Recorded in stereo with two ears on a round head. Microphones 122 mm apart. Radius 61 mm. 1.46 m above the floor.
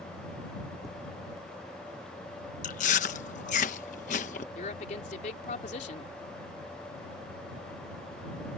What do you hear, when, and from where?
0.8 s tapping: 5° left (ahead or behind)
2.6 s chewing: 60° left (ahead or behind)
4.5 s a woman speaking: 60° left (ahead or behind)